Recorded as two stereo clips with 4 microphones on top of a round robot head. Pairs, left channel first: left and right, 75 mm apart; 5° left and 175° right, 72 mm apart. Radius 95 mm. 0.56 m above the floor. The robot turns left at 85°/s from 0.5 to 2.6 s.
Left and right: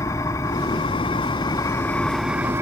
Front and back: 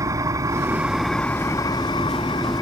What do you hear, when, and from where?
0.0 s an engine running: 145° left; by 2.6 s 35° right